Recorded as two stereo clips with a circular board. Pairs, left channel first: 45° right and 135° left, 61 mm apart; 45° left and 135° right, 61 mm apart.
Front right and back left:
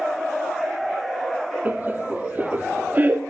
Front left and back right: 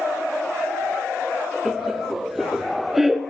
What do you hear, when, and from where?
1.6 s laughter: 145° left, 0.6 m